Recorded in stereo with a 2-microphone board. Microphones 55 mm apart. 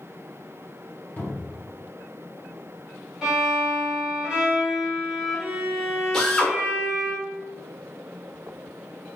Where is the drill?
10° left (ahead or behind), 0.7 m.